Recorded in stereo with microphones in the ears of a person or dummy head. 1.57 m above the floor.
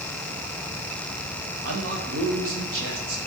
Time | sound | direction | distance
1.6 | a man speaking | 85° right | 3 m